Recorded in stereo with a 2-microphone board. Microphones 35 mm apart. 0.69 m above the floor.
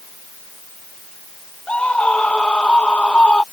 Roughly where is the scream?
Left.